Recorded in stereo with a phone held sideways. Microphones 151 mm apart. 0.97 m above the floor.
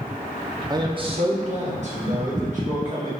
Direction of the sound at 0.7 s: 25° right (ahead or behind).